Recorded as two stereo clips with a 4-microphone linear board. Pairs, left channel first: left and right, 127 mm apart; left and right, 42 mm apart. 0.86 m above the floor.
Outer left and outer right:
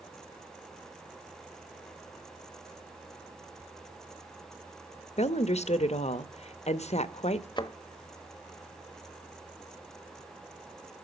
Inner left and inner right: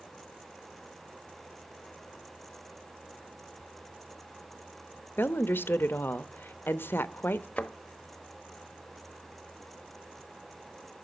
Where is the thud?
35° left (ahead or behind), 0.9 m.